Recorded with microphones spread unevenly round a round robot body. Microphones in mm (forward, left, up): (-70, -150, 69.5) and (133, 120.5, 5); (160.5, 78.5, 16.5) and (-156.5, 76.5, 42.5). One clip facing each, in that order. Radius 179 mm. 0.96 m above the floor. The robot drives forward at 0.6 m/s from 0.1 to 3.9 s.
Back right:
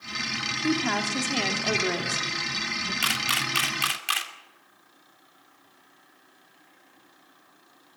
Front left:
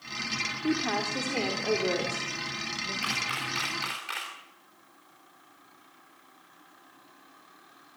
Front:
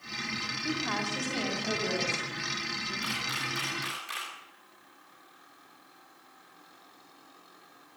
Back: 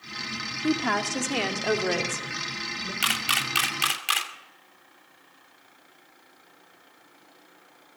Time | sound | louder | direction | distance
0.6 | a woman speaking | back right 2 dB, back 9 dB | 170° left | 2.5 m
3.0 | a camera shutter | back right 3 dB, back 2 dB | 160° right | 2.5 m